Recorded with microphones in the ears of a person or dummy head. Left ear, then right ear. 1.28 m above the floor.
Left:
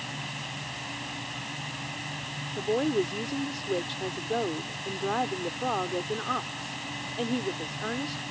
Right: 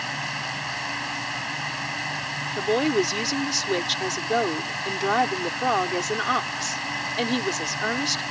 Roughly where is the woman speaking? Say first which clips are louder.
Right 4 dB; right.